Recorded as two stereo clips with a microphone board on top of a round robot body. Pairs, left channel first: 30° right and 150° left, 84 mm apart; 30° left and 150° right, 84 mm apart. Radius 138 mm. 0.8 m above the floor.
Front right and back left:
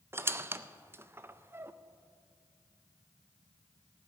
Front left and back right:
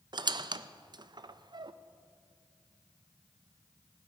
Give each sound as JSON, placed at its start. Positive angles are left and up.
{"t": 0.1, "sound": "a squeak", "azimuth_deg": -155, "distance_m": 0.5}